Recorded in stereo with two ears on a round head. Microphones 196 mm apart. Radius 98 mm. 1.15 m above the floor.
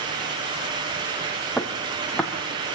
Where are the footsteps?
Centre (ahead or behind), 3 m.